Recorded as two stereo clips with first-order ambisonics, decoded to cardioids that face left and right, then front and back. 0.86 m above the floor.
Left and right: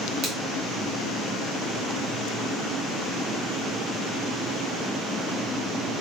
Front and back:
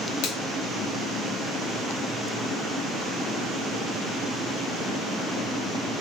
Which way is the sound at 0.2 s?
35° right.